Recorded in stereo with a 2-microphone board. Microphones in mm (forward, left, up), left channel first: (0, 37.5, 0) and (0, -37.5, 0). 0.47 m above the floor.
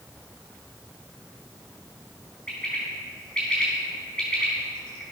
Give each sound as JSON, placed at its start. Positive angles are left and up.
{"t": 2.5, "sound": "a bird", "side_deg": 15, "distance_m": 4.5}